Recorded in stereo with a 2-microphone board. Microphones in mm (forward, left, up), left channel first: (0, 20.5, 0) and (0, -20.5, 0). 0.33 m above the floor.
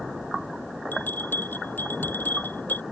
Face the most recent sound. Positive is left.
turn(degrees=50)  # may be behind; listen again after turning